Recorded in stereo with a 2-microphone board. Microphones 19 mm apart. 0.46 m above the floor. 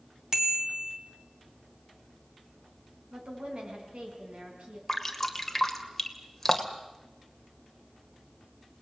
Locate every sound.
0.3 s a bicycle bell: 30° right (ahead or behind), 2.5 m
3.1 s a woman speaking: 70° right (ahead or behind), 5.5 m
4.9 s dripping: 10° left (ahead or behind), 2 m